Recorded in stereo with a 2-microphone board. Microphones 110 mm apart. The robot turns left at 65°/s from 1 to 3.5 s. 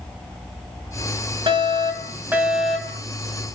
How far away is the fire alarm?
About 3 m.